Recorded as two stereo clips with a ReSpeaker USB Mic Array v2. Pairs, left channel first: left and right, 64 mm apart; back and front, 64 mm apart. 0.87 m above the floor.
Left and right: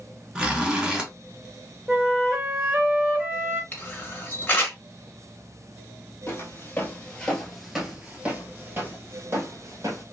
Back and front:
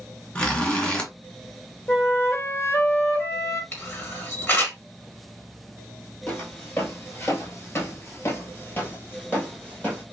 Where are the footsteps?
130° left, 1.3 m; by 10.0 s 115° right, 1.8 m.